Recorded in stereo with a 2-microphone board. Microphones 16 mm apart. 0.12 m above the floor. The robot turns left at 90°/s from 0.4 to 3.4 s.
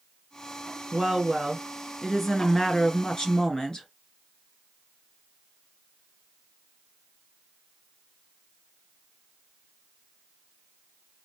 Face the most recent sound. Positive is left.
turn(degrees=65)